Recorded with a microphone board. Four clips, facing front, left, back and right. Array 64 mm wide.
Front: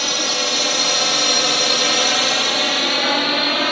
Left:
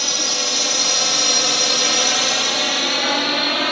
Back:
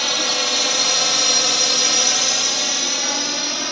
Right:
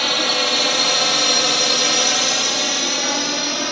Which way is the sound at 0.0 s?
95° right.